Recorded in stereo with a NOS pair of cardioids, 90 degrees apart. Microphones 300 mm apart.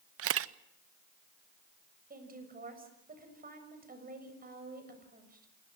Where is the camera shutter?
50° right, 0.7 m.